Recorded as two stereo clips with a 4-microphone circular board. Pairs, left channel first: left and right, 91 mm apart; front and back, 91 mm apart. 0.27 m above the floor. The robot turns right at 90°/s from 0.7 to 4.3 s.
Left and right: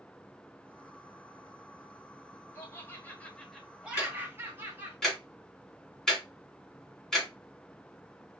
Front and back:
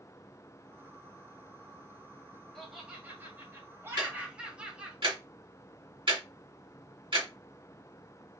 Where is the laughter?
85° left, 1.6 m; by 5.0 s 120° right, 1.6 m.